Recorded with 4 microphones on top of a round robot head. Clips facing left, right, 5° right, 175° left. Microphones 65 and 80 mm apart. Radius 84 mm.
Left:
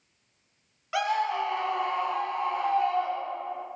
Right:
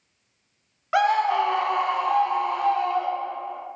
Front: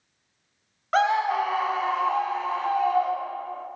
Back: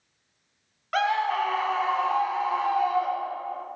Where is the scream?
55° right, 0.7 m; by 3.6 s 105° right, 2 m.